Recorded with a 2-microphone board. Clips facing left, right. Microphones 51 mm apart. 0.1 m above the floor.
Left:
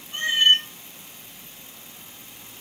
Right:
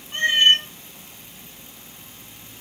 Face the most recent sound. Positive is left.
turn(degrees=-55)  # may be behind; listen again after turning